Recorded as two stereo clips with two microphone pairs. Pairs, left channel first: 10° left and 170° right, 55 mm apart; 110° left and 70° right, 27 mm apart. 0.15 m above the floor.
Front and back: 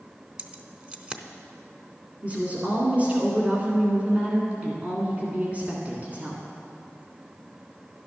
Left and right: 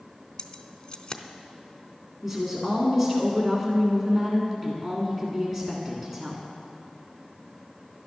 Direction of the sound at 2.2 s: 135° right.